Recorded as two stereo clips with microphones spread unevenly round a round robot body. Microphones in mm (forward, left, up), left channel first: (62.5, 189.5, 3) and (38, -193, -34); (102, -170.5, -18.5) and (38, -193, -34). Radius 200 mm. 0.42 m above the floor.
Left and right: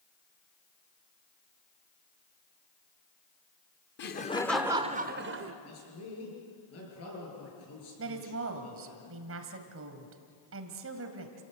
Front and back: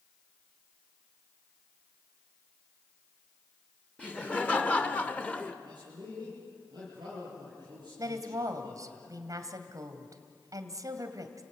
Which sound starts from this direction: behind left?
A man speaking, at 5.6 s.